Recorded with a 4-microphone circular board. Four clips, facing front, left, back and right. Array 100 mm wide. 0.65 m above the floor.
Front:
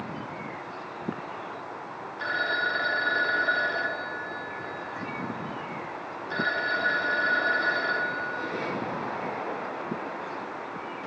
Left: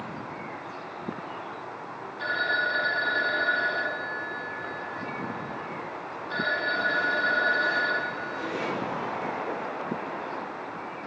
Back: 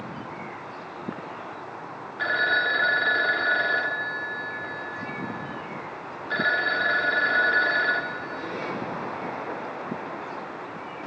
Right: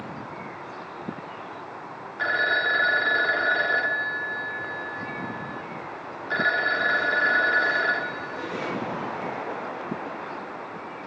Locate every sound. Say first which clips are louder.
2.2 s a phone ringing: right 3 dB, back 4 dB; 120° right, 1.2 m